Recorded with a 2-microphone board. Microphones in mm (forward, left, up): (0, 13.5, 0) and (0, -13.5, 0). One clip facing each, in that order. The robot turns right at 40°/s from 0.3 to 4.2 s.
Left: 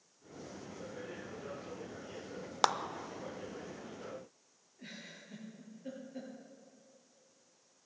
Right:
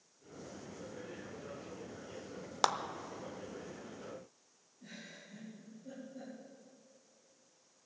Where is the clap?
10° left (ahead or behind), 0.6 m.